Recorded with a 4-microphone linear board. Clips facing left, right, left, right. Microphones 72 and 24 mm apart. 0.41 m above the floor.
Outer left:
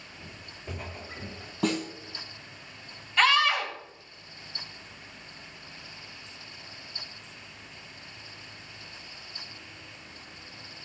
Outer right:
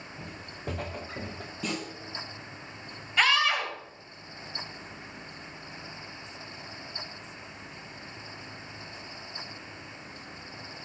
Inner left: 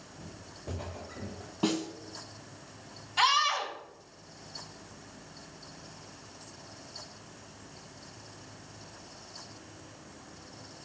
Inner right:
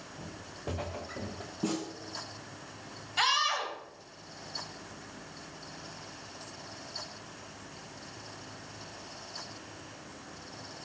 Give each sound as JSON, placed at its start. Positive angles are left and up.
{"t": 0.2, "sound": "footsteps", "side_deg": -70, "distance_m": 2.5}
{"t": 1.6, "sound": "a snare drum", "side_deg": 55, "distance_m": 3.0}
{"t": 3.2, "sound": "a scream", "side_deg": -5, "distance_m": 1.9}